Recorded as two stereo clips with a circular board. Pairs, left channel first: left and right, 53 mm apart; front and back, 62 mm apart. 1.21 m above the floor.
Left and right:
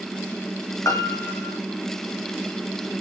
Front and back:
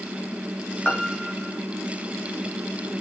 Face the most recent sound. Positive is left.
turn(degrees=70)